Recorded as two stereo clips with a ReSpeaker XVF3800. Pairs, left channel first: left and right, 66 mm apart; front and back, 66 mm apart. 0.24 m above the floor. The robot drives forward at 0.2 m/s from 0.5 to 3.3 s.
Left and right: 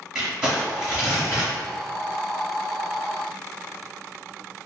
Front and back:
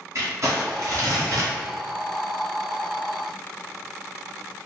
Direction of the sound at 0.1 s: 165° right.